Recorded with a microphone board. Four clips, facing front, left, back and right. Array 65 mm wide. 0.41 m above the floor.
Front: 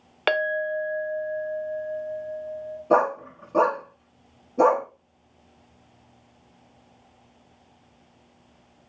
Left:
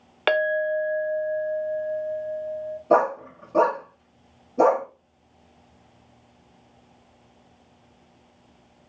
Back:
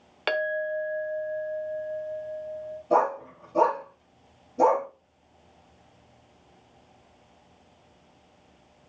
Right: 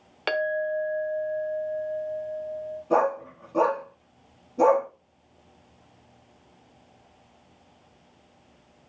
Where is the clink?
45° left, 0.8 m.